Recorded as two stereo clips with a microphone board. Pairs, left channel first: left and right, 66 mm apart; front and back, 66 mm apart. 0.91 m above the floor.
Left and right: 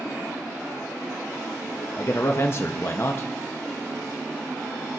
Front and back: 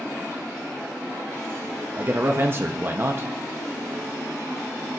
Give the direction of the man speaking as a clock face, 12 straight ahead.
8 o'clock.